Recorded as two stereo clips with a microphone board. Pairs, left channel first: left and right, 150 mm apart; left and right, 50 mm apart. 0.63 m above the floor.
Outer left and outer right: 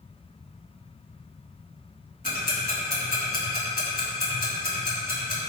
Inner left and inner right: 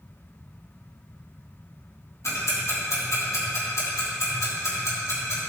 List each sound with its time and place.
2.2 s ticking: 85° left, 2.5 m